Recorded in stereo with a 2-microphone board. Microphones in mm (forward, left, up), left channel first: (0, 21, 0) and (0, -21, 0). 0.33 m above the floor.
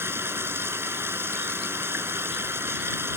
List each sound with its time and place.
0.0 s running water: 75° right (ahead or behind)